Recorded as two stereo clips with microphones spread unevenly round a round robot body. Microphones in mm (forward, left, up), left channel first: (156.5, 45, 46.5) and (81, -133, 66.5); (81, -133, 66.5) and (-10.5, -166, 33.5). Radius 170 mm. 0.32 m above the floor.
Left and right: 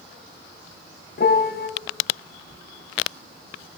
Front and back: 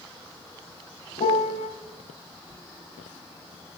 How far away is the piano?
About 1.1 m.